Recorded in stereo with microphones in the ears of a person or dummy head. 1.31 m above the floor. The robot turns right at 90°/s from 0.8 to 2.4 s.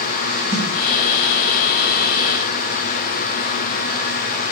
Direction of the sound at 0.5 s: 35° right (ahead or behind).